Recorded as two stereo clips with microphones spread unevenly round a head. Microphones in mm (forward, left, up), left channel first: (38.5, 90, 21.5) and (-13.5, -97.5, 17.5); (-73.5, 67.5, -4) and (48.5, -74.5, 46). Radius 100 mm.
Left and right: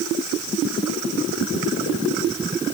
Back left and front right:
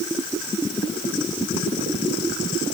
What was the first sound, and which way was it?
Only background noise.